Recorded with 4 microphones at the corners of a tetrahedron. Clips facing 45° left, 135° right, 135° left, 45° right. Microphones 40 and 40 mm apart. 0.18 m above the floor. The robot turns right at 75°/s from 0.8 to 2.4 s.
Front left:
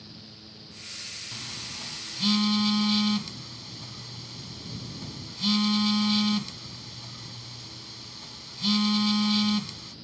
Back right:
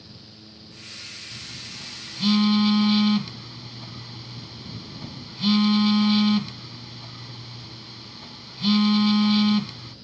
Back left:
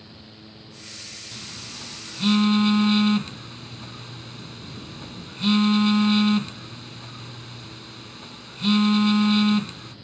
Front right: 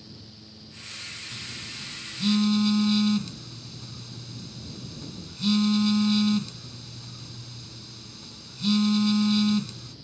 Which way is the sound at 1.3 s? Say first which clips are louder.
Even, front right 1 dB; 70° left.